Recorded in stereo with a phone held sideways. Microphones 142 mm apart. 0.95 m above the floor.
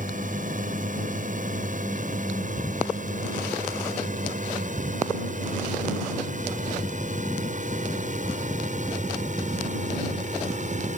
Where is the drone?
70° right (ahead or behind); by 11.0 s 60° right (ahead or behind).